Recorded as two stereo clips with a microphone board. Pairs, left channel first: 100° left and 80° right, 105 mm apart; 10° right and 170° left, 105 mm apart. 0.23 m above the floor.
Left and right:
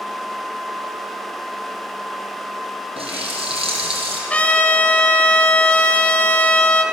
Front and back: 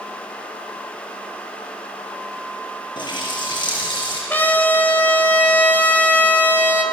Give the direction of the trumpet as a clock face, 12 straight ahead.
11 o'clock.